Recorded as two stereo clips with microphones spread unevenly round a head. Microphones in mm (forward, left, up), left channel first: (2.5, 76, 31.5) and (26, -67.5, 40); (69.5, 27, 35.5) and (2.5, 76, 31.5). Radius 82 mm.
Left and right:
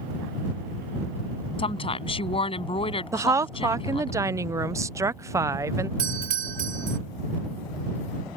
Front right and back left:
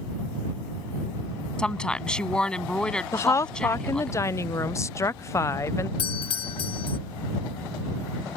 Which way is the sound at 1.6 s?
40° left.